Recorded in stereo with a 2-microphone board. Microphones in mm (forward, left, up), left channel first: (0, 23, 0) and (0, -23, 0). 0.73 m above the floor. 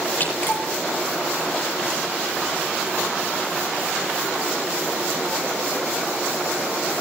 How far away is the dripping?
About 9 m.